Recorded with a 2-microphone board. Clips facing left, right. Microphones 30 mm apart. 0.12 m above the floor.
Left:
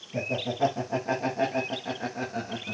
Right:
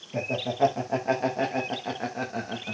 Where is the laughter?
35° right (ahead or behind), 7.5 m; by 2.8 s 30° right (ahead or behind), 6 m.